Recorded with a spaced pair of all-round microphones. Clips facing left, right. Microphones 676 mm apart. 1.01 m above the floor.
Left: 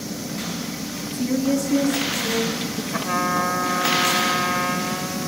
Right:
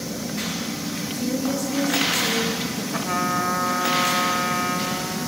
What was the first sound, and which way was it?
A woman speaking, 70° left (ahead or behind).